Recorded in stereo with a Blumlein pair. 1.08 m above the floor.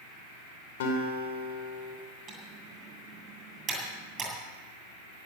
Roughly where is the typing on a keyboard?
Ahead.